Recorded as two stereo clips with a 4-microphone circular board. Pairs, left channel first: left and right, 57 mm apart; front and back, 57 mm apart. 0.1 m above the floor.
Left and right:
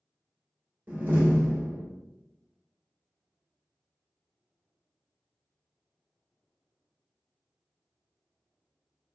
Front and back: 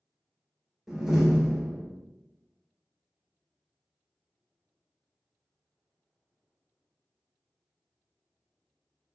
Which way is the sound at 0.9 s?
100° right.